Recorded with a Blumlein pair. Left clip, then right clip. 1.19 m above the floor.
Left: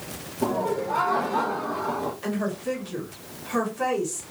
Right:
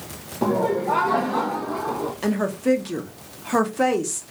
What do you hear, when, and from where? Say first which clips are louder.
0.4 s laughter: right 4 dB; 65° right, 0.8 m; by 2.1 s 20° right, 1.4 m
2.2 s a woman speaking: right 6 dB; 35° right, 1.2 m